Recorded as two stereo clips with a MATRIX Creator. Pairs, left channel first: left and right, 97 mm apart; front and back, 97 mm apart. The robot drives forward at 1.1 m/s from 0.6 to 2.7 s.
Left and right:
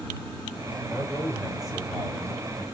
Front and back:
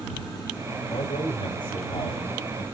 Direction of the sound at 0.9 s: 5° right.